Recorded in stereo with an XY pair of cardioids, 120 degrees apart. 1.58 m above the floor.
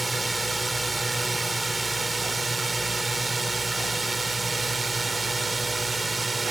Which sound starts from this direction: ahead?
A drone, at 0.0 s.